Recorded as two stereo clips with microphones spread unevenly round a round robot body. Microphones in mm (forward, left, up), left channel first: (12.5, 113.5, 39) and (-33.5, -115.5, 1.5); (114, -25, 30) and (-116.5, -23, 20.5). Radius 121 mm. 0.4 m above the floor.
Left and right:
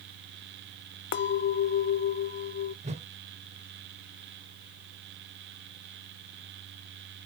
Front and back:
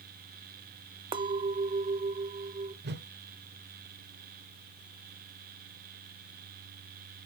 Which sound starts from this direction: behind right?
A whoosh, at 2.8 s.